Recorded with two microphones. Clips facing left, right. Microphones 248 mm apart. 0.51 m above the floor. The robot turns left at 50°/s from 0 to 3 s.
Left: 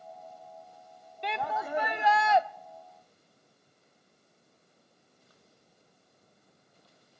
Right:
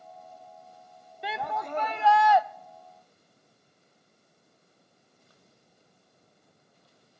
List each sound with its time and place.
1.2 s a shout: 170° right, 0.7 m; by 2.4 s 130° left, 0.7 m